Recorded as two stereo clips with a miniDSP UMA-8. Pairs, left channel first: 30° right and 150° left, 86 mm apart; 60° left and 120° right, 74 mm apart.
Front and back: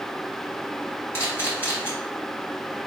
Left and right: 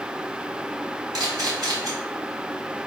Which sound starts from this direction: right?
A camera shutter, at 1.1 s.